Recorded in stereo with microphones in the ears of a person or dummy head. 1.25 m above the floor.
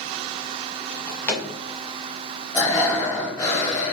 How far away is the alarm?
I don't hear an alarm.